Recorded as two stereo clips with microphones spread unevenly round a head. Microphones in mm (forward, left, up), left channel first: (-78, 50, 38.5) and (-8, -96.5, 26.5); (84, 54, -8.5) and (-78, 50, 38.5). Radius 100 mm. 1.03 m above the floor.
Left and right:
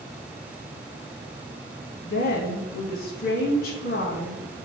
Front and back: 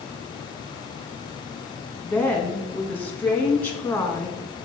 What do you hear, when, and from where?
2.0 s a woman speaking: 75° left, 1.2 m